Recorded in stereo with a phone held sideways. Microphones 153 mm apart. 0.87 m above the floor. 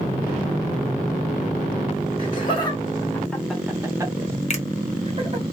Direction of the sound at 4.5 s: 45° left (ahead or behind).